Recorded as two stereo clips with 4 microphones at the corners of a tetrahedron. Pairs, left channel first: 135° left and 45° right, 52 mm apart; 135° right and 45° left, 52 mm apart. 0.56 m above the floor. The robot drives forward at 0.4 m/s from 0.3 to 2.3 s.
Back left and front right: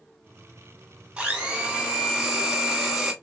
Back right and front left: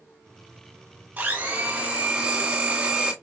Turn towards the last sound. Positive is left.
turn(degrees=30)